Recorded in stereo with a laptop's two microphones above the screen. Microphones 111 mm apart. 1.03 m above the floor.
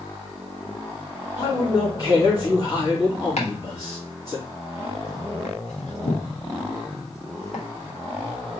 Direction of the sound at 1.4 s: 35° left (ahead or behind).